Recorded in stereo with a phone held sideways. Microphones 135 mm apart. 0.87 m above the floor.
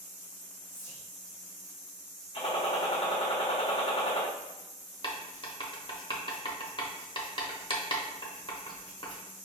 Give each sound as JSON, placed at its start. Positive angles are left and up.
{"t": 0.7, "sound": "whispering", "side_deg": 45, "distance_m": 0.8}
{"t": 2.3, "sound": "a gunshot", "side_deg": 50, "distance_m": 1.3}
{"t": 5.0, "sound": "writing", "side_deg": 35, "distance_m": 0.7}